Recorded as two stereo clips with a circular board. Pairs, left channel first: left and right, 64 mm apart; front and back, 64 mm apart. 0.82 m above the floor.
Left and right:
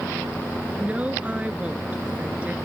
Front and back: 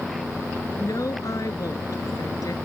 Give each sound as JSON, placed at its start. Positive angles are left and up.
{"t": 0.8, "sound": "a woman speaking", "azimuth_deg": -20}